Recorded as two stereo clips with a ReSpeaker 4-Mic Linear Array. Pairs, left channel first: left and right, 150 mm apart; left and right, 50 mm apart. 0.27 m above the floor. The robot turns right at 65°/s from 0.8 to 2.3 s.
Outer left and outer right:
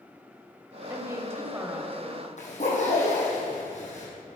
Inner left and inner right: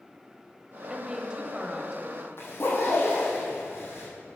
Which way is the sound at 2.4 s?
50° left (ahead or behind).